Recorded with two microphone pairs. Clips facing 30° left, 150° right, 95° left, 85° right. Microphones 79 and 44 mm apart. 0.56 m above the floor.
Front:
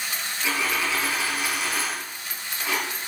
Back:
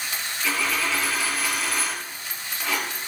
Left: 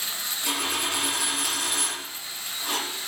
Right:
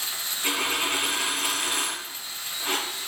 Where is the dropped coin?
45° right, 3.5 m.